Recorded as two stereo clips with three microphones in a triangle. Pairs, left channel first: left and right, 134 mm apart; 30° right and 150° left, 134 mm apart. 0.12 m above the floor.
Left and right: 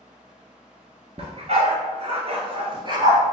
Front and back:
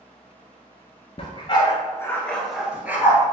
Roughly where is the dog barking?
Ahead right.